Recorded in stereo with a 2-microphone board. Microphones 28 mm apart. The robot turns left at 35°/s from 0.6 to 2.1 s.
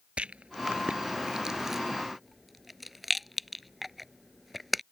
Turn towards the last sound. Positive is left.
turn(degrees=0)  # may be behind; listen again after turning